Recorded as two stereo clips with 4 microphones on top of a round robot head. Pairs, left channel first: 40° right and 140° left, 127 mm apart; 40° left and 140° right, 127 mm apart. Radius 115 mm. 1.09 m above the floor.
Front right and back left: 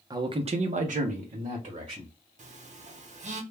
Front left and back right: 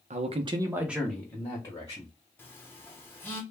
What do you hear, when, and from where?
0.1 s a man speaking: 160° right, 0.6 m; by 2.1 s 100° left, 1.2 m
2.4 s a phone buzzing: 115° left, 0.8 m